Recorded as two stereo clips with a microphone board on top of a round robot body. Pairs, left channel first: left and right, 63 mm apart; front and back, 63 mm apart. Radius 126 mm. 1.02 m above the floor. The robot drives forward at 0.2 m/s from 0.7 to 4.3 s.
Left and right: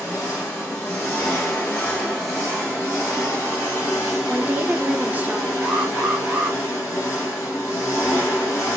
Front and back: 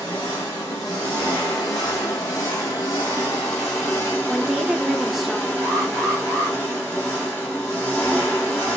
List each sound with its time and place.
0.0 s an engine running: 10° left, 0.9 m; by 8.8 s 65° left, 0.5 m
4.3 s a woman speaking: 95° right, 0.6 m; by 5.5 s 100° right, 0.6 m
5.6 s an alarm: 155° right, 0.7 m